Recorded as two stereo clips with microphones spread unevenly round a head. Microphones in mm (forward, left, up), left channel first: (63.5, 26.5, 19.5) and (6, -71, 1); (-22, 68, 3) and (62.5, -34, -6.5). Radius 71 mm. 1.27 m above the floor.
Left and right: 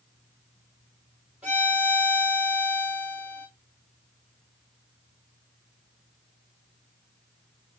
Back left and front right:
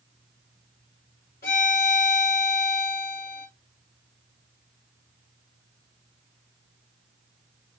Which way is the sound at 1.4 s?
155° left.